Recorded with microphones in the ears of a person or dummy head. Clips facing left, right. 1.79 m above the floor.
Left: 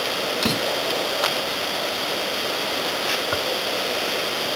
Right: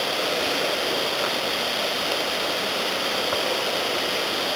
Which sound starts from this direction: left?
A door slam, at 0.4 s.